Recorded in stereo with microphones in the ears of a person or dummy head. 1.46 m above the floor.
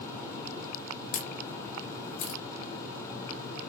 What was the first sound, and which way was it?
A camera shutter, 40° left (ahead or behind).